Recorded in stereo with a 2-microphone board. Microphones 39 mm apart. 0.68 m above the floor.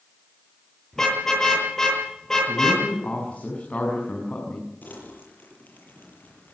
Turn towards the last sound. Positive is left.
turn(degrees=45)  # may be behind; listen again after turning